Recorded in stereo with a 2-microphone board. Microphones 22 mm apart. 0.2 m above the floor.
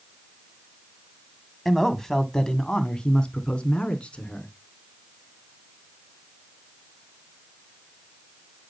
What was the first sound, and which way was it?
A man speaking, 10° left (ahead or behind).